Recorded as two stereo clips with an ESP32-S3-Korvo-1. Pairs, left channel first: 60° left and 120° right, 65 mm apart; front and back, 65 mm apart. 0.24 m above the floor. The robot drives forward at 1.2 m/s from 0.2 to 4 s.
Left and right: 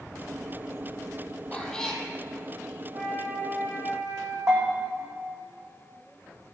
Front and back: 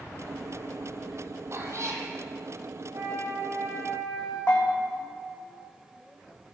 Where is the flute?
160° right, 4.5 m; by 4.4 s 165° right, 6 m.